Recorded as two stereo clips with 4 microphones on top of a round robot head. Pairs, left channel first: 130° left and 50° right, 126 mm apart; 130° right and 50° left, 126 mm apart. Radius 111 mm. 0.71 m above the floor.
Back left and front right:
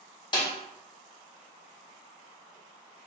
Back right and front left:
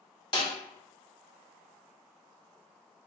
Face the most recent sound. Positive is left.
turn(degrees=180)